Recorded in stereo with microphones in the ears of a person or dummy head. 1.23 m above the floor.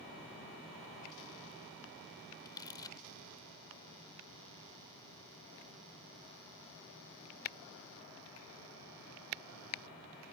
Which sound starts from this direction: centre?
Crumpling, at 2.5 s.